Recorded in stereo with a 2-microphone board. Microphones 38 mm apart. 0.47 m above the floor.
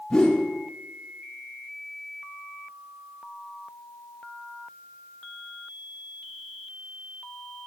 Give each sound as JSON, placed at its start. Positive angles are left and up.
{"t": 0.1, "sound": "a whoosh", "side_deg": 15, "distance_m": 1.2}